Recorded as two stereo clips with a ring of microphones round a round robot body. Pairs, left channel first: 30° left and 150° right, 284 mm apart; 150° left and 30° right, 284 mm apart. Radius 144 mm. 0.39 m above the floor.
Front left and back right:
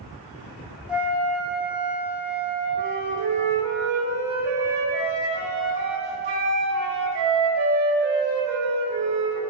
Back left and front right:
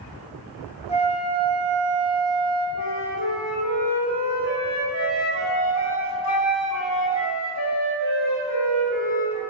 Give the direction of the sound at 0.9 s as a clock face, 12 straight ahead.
8 o'clock.